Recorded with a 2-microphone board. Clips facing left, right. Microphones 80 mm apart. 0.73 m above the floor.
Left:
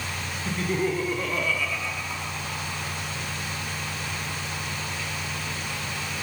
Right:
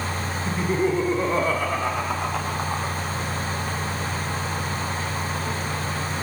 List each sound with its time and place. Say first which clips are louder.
0.5 s laughter: right 3 dB; 10° right (ahead or behind), 2.5 m; by 3.0 s 50° right (ahead or behind), 2.5 m